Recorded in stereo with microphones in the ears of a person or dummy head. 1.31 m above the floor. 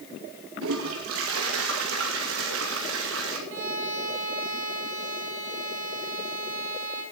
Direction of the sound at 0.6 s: 65° right (ahead or behind).